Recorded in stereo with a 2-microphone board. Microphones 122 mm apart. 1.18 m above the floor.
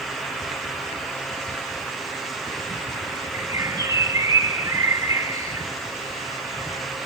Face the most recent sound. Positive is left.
turn(degrees=-30)  # may be behind; listen again after turning